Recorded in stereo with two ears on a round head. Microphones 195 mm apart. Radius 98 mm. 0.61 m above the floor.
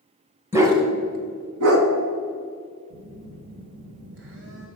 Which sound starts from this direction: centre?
A dog barking, at 0.5 s.